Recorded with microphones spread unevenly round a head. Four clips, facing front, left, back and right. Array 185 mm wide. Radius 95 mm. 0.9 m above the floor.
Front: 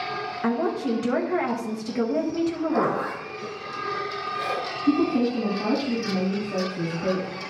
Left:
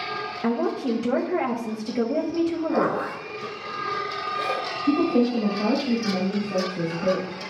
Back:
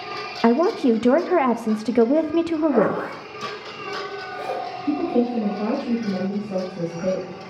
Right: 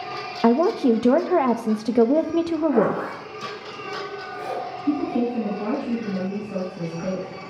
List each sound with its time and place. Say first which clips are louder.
0.4 s a woman speaking: right 7 dB, back 8 dB; 150° right, 0.6 m
2.7 s a zipper: right 3 dB, back 4 dB; 145° left, 4.5 m
4.8 s a woman speaking: left 3 dB, even; 140° left, 5 m